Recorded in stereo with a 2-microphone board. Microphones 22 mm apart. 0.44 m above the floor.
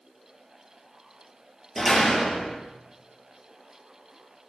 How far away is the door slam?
About 8 m.